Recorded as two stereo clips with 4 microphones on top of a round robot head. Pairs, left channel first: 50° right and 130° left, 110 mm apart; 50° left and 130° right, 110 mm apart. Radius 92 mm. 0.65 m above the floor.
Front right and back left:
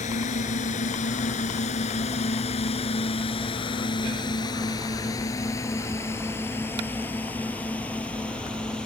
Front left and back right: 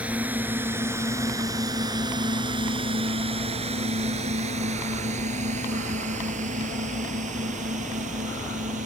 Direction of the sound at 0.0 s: 50° right.